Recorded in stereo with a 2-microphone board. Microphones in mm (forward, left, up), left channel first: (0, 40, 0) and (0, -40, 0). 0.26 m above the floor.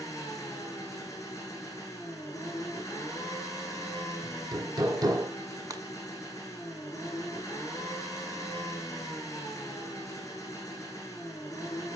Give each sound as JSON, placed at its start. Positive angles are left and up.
{"t": 0.0, "sound": "an engine running", "side_deg": 40, "distance_m": 4.5}
{"t": 4.2, "sound": "hammering", "side_deg": -55, "distance_m": 2.5}
{"t": 5.7, "sound": "breaking glass", "side_deg": -50, "distance_m": 1.4}